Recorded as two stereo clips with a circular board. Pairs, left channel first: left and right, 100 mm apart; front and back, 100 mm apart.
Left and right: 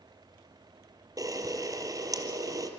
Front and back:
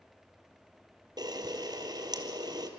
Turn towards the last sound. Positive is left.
turn(degrees=-140)